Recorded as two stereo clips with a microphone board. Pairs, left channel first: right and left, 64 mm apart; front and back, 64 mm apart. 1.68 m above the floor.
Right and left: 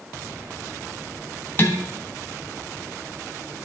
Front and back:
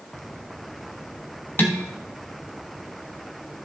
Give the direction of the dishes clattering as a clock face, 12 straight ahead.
2 o'clock.